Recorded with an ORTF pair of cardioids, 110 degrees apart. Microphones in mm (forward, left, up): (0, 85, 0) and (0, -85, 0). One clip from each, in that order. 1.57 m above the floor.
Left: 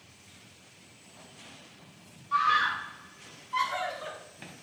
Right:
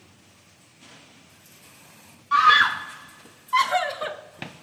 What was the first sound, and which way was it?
A scream, 55° right.